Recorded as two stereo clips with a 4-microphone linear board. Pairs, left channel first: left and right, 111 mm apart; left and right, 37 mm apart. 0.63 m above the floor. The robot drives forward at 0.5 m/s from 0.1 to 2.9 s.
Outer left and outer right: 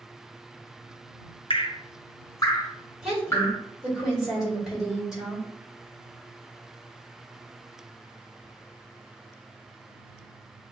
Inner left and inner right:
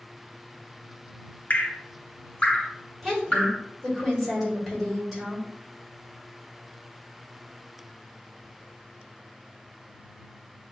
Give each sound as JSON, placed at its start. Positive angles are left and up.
{"t": 1.5, "sound": "dripping", "side_deg": 55, "distance_m": 0.5}
{"t": 3.0, "sound": "a woman speaking", "side_deg": -5, "distance_m": 2.5}